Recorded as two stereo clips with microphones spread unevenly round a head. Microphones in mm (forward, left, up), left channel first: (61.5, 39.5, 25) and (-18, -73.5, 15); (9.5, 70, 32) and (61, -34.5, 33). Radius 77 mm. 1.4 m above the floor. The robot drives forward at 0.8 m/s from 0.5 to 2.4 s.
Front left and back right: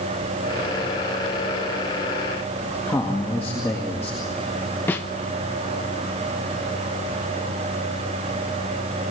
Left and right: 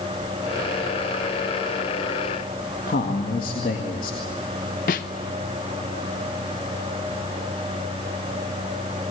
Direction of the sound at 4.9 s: 130° left.